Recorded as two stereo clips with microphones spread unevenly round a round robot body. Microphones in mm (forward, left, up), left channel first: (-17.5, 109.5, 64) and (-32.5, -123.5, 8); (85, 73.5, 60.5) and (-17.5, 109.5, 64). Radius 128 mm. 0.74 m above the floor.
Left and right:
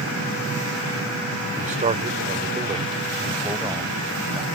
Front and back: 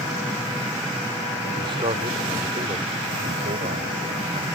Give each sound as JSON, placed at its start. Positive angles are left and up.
{"t": 1.6, "sound": "a man speaking", "azimuth_deg": -145}